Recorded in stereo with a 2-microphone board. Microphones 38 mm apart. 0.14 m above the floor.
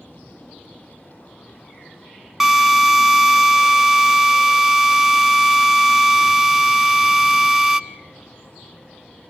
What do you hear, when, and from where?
2.4 s a drill: 10° right (ahead or behind), 0.9 m